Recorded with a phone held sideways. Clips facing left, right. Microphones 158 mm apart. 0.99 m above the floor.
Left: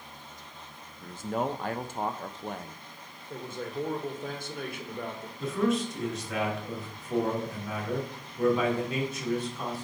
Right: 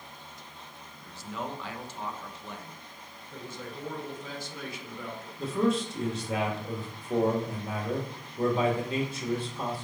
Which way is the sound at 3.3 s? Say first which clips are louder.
Left 5 dB; 55° left (ahead or behind).